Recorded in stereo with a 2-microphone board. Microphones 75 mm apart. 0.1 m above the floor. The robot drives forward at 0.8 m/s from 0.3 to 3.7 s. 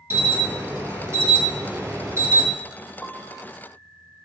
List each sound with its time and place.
0.1 s an alarm: 35° right (ahead or behind), 4 m; by 2.5 s 45° right (ahead or behind), 3 m
3.0 s a piano: 20° left (ahead or behind), 1.1 m; by 3.5 s 30° left (ahead or behind), 0.8 m